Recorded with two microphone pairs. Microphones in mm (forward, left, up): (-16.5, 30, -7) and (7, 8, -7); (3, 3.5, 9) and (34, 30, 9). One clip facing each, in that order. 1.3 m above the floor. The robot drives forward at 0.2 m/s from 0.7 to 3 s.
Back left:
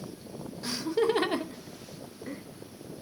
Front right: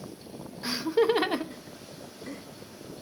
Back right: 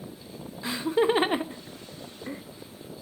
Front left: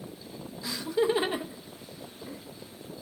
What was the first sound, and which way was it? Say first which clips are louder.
Laughter: front right 3 dB, back right 3 dB; 100° right.